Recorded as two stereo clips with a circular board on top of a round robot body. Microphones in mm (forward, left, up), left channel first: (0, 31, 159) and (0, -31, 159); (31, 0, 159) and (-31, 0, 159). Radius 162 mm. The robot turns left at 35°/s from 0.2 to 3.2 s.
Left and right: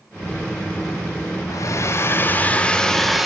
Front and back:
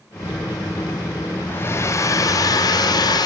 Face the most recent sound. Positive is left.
turn(degrees=0)